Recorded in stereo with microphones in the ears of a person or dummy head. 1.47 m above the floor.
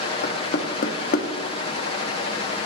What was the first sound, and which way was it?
Knocking, 55° left (ahead or behind).